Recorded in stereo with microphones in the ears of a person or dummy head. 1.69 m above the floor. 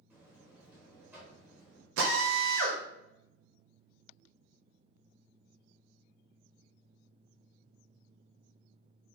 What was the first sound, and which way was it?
A buzzer, 15° right (ahead or behind).